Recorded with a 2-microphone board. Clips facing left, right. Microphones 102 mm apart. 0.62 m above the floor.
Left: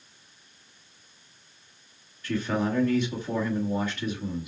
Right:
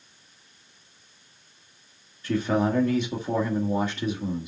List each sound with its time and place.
2.2 s a man speaking: 30° right (ahead or behind), 1.4 m